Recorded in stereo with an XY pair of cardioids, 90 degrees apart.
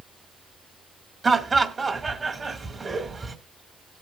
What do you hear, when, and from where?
1.2 s laughter: 35° right, 2 m